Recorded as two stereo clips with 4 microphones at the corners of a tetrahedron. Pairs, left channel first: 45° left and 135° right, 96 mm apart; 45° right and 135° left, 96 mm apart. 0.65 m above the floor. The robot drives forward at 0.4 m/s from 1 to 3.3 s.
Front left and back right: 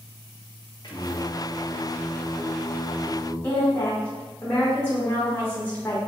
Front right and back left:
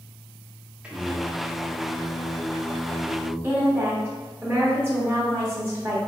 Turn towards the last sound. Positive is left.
turn(degrees=95)